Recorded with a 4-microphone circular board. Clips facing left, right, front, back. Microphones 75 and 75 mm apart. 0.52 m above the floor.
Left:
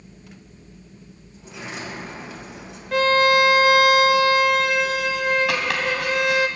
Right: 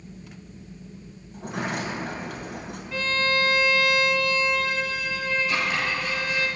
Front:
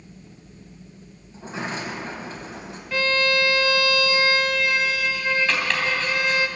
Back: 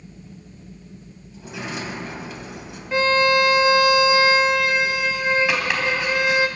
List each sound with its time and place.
1.3 s a sliding door: 55° right, 2.5 m
2.9 s a violin: 110° left, 0.6 m
5.5 s chopping: 100° left, 3 m